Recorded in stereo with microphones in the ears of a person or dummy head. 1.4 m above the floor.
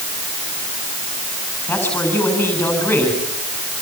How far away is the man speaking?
About 8 m.